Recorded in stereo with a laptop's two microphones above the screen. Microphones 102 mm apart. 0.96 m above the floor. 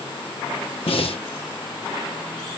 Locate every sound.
0.9 s breathing: 65° left (ahead or behind), 1.7 m